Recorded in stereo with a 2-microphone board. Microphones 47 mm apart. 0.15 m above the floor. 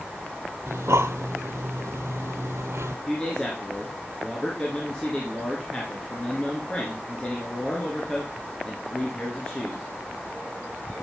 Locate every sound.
0.7 s breathing: 80° right, 0.8 m
3.1 s a man speaking: 20° left (ahead or behind), 2 m